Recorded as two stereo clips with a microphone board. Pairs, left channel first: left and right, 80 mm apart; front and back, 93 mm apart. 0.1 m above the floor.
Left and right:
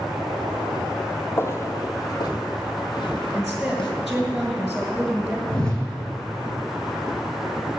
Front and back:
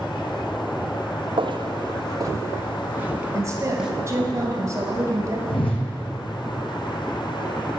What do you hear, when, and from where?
1.4 s footsteps: 150° left, 1.6 m; by 3.9 s 95° left, 3 m
3.3 s a woman speaking: 175° right, 1.6 m
5.5 s a whoosh: 10° left, 2.5 m